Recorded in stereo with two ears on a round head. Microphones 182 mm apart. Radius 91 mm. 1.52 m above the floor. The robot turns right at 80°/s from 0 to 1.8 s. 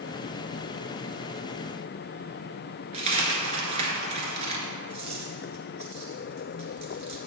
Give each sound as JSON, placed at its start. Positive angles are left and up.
{"t": 2.9, "sound": "a dropped coin", "side_deg": -30, "distance_m": 1.7}